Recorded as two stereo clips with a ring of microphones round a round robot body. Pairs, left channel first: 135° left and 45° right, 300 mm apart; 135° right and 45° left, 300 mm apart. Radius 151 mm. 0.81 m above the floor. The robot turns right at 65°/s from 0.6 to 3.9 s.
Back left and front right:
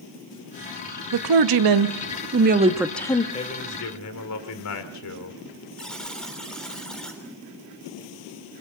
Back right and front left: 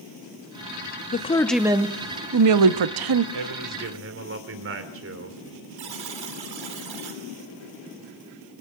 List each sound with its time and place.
1.1 s a woman speaking: 70° right, 0.8 m; by 3.2 s 65° left, 0.8 m
3.3 s a man speaking: 60° left, 2.5 m; by 5.7 s 95° left, 2.5 m
5.8 s a buzzer: 45° left, 3.5 m